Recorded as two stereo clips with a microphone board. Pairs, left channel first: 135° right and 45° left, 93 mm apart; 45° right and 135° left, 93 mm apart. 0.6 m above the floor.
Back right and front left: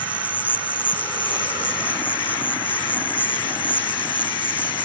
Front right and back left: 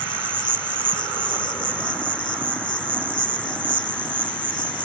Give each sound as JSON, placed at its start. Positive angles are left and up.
{"t": 0.0, "sound": "an insect", "azimuth_deg": -70}